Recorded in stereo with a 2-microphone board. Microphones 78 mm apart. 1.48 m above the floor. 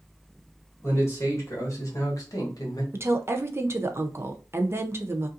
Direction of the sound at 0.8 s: 35° left (ahead or behind).